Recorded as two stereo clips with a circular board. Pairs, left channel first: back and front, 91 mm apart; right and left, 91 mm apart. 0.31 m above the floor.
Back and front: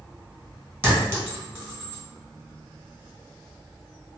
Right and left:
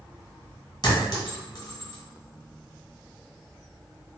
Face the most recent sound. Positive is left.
turn(degrees=-60)